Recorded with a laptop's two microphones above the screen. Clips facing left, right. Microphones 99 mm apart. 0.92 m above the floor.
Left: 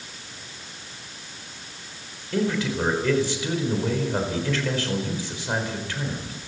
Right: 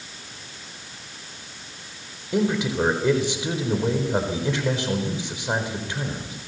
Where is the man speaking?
20° right (ahead or behind), 4 m.